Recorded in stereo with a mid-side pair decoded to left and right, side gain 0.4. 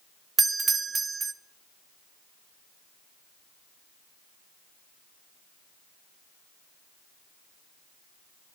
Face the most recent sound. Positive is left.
turn(degrees=-35)